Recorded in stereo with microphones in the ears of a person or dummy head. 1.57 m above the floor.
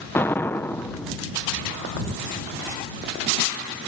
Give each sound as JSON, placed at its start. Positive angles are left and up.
{"t": 0.1, "sound": "an explosion", "side_deg": 15}